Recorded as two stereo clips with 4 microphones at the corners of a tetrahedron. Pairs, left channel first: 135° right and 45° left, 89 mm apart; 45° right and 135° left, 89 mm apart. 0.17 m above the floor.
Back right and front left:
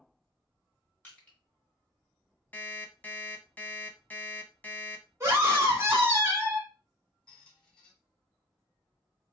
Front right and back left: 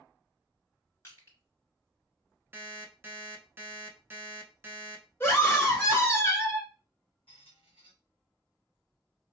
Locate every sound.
1.0 s crushing: 75° right, 1.9 m
2.5 s an alarm clock: 170° left, 0.6 m
5.2 s a scream: straight ahead, 1.3 m
7.3 s a squeak: 55° right, 1.5 m